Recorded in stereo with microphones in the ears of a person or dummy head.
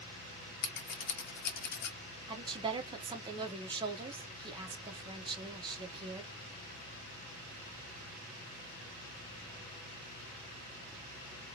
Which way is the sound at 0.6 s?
60° left (ahead or behind).